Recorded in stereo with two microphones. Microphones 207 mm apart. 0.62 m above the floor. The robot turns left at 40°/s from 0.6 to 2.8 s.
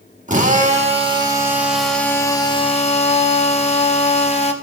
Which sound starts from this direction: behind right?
A drill, at 0.3 s.